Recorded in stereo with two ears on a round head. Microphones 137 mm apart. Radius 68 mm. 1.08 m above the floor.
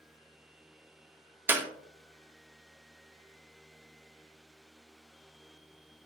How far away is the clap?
About 0.7 m.